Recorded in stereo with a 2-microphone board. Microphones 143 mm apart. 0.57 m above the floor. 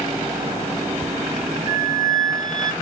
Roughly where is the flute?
Right.